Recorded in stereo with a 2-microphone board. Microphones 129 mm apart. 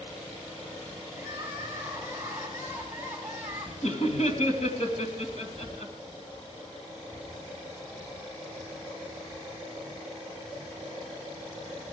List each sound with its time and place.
1.2 s crying: 20° right (ahead or behind), 4 m
3.8 s laughter: 65° left (ahead or behind), 2 m